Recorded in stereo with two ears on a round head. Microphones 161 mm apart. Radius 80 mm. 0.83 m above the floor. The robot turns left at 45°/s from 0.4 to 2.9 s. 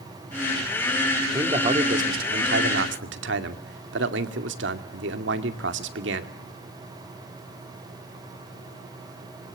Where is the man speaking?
20° right, 2.5 m; by 6.3 s 90° right, 2.5 m.